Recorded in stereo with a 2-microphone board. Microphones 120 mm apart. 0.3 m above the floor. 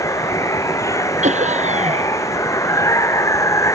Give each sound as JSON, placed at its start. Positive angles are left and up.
{"t": 0.0, "sound": "running water", "side_deg": 25}
{"t": 1.2, "sound": "laughter", "side_deg": -80}